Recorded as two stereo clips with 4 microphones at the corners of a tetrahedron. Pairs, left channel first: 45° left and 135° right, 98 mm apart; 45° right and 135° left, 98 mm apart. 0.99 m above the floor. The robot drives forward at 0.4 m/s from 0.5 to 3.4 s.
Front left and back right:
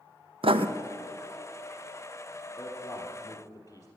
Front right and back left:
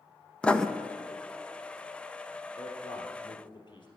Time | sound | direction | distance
0.4 | writing | 125° right | 0.6 m
2.6 | a man speaking | 15° right | 3.5 m